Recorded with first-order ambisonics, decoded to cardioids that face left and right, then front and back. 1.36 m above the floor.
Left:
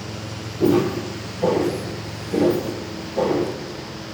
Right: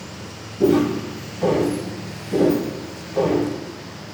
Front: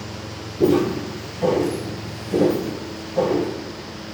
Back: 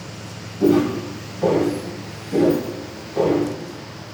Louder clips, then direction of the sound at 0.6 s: Right 1 dB, back 1 dB; 10° right.